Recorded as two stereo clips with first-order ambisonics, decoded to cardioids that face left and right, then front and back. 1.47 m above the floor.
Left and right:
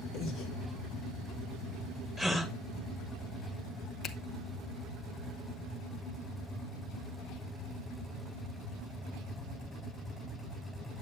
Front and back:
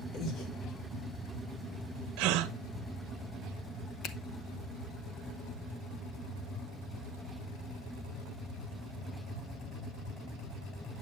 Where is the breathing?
40° left, 2.0 m.